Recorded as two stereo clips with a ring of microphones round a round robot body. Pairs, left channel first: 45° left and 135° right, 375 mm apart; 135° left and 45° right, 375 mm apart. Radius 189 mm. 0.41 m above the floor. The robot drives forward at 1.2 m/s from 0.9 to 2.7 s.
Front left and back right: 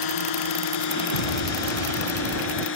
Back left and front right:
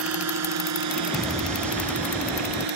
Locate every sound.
0.0 s a drone: 10° left; by 2.8 s 15° right
1.1 s an explosion: 45° left; by 2.7 s 55° left